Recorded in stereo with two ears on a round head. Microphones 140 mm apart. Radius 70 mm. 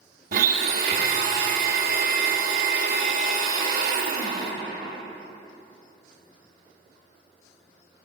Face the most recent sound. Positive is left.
turn(degrees=-60)  # may be behind; listen again after turning